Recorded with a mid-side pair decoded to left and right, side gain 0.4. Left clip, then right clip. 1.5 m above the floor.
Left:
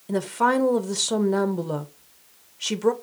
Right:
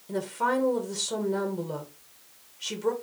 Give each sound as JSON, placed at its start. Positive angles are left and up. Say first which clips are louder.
{"t": 0.1, "sound": "a woman speaking", "louder": "left 5 dB", "azimuth_deg": 60, "distance_m": 0.7}